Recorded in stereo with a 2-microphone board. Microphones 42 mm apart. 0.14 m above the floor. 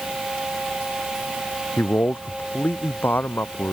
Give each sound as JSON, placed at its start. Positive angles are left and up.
{"t": 1.8, "sound": "a man speaking", "side_deg": 65}